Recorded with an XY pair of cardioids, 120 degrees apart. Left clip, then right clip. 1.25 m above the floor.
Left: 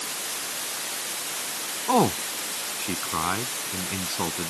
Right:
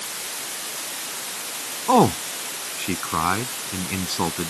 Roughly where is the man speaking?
Ahead right.